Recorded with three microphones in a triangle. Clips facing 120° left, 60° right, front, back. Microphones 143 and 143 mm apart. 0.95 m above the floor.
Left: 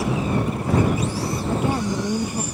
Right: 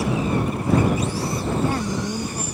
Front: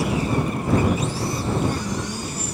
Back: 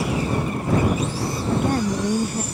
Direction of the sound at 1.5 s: 170° right.